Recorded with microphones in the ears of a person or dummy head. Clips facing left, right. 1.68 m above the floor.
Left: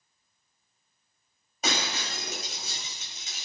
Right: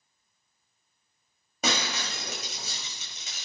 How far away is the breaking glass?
About 6 m.